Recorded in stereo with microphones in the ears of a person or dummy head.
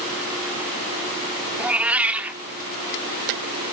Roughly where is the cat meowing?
Centre.